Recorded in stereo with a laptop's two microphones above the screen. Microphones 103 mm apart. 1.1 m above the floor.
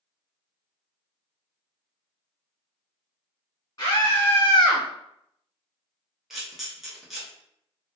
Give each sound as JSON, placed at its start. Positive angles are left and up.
{"t": 3.8, "sound": "a scream", "side_deg": 40, "distance_m": 1.4}
{"t": 6.3, "sound": "a camera shutter", "side_deg": -5, "distance_m": 0.6}